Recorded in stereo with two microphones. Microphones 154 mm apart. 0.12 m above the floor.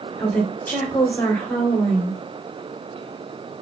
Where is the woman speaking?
15° left (ahead or behind), 1.1 m.